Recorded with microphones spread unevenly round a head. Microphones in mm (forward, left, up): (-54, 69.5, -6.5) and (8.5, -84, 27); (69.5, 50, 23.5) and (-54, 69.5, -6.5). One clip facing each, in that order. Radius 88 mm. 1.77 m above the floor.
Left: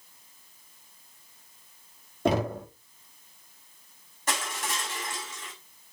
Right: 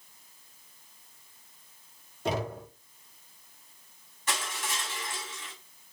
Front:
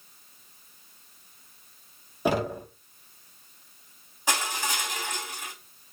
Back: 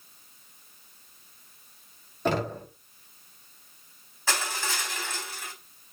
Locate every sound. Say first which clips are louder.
2.2 s knocking: left 6 dB, front 2 dB; 70° left, 3.5 m
4.3 s crushing: left 3 dB, front 2 dB; 55° left, 4 m